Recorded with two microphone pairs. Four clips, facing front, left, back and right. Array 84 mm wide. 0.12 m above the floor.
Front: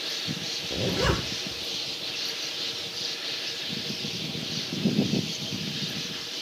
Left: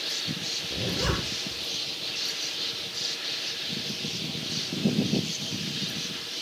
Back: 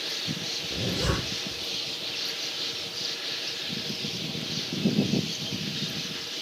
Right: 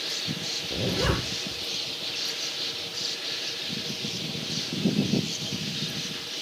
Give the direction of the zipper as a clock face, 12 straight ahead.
1 o'clock.